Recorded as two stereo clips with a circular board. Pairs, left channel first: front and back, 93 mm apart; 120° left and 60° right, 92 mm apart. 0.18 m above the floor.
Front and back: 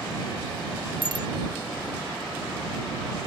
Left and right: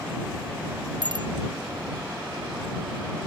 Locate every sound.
1.0 s a bicycle bell: 25° right